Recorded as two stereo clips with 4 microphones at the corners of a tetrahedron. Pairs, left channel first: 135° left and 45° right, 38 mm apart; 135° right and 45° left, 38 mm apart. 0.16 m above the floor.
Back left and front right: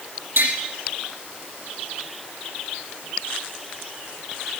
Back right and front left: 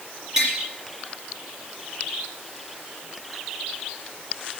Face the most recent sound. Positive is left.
turn(degrees=-30)